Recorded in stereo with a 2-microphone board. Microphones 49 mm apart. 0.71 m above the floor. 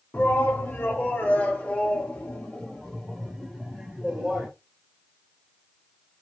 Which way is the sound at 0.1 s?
40° left (ahead or behind).